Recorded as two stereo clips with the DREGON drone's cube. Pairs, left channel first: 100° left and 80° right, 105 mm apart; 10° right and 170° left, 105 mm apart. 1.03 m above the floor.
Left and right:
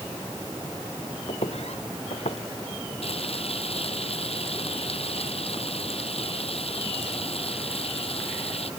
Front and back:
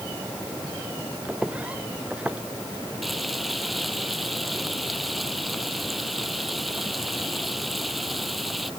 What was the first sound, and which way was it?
Footsteps, 90° left.